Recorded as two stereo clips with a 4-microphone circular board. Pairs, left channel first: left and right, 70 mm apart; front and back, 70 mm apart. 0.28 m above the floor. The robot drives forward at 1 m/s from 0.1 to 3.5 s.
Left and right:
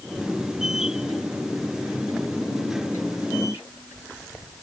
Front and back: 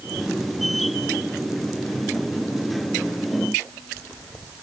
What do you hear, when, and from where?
Only background noise.